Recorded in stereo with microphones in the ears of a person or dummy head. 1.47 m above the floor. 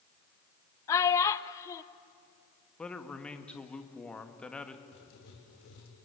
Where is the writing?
65° left (ahead or behind), 3 m.